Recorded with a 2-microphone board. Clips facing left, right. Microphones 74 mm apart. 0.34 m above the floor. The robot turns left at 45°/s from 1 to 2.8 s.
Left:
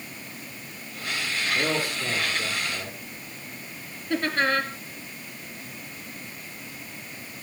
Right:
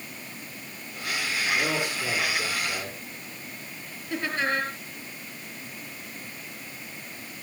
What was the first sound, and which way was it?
A man speaking, 45° left.